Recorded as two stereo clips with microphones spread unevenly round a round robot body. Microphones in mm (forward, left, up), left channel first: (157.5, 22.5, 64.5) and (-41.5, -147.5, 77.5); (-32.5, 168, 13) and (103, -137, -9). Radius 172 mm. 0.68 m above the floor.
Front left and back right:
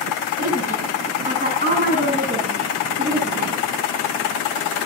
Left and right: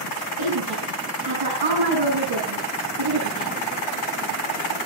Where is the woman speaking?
85° right, 8.5 m.